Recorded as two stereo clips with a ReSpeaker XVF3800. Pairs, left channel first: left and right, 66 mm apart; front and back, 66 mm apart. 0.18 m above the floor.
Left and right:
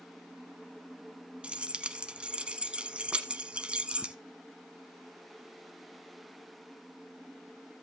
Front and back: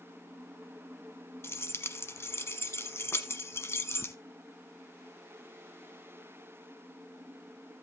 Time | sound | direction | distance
1.4 | keys jangling | 25° right | 0.9 m